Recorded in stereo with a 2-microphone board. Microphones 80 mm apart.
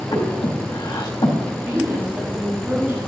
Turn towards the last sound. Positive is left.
turn(degrees=-35)  # may be behind; listen again after turning